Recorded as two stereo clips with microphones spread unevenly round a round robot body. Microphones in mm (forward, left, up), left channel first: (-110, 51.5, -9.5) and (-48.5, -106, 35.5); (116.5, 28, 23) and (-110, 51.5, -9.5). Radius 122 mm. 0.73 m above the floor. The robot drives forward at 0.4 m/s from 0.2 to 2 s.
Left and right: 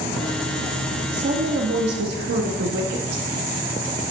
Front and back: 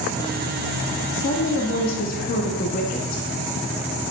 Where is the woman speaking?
40° right, 1.3 m; by 3.2 s 60° right, 1.1 m.